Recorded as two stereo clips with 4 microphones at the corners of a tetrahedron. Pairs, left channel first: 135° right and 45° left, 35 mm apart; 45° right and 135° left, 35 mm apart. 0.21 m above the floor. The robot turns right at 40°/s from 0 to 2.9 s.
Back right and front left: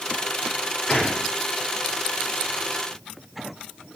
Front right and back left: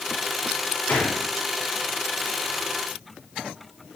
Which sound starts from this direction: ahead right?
A gunshot, at 0.9 s.